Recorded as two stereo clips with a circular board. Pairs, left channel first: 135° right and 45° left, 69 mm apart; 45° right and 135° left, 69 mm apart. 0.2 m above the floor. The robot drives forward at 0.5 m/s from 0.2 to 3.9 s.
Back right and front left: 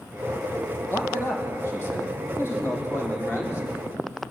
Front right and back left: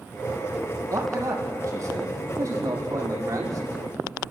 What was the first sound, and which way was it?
A man speaking, 175° left.